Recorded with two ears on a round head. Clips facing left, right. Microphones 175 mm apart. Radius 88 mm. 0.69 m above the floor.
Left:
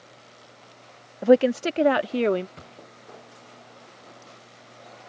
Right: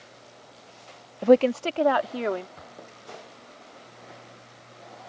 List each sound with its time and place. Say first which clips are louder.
1.2 s a woman speaking: left 1 dB; 5° left (ahead or behind); by 2.5 s 40° left (ahead or behind)
2.6 s a gunshot: right 1 dB; 40° left (ahead or behind)